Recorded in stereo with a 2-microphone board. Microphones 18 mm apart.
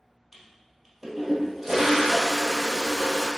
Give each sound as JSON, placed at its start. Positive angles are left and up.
{"t": 0.3, "sound": "a toilet flushing", "side_deg": -15, "distance_m": 1.2}